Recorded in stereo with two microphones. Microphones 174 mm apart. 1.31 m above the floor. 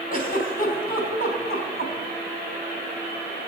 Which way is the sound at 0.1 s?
55° left (ahead or behind).